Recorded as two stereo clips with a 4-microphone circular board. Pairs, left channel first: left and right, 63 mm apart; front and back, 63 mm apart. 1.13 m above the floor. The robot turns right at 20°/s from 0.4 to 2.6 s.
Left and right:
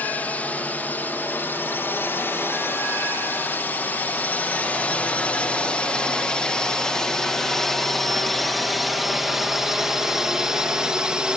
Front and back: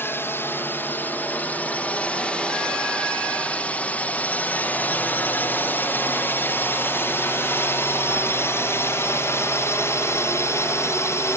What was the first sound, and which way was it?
A drone, 35° left.